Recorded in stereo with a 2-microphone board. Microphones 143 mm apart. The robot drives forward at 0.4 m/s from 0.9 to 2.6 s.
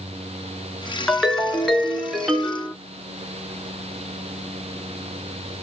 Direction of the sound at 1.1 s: Centre (ahead or behind).